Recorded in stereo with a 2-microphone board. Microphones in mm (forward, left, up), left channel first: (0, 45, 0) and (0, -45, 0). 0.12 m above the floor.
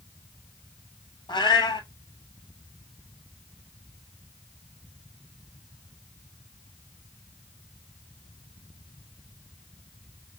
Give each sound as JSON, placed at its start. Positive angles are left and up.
{"t": 1.3, "sound": "a cat meowing", "side_deg": 55, "distance_m": 0.8}